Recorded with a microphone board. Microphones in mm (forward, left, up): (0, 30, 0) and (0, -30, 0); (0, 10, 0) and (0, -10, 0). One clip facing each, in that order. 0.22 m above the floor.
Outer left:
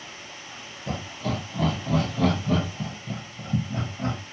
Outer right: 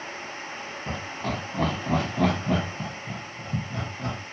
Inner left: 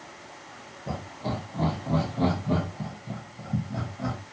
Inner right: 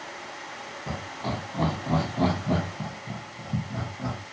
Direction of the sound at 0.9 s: 45° right (ahead or behind).